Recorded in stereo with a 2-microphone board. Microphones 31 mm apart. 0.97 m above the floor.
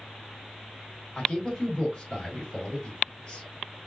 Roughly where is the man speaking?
Left.